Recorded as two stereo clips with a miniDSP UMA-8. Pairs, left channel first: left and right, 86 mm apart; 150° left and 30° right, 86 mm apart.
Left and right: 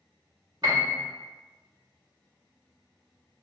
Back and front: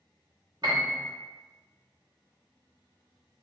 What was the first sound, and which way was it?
A piano, 55° right.